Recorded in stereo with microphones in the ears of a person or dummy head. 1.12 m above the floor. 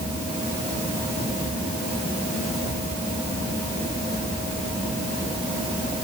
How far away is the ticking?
I don't hear ticking.